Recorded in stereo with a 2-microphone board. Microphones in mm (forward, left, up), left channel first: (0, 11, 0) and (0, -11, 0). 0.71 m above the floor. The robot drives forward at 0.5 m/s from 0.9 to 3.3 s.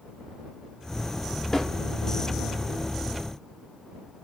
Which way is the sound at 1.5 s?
20° left (ahead or behind).